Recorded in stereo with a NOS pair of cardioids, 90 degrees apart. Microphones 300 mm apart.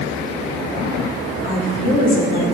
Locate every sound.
1.4 s a woman speaking: 50° left, 2.5 m; by 2.5 s 30° left, 3.5 m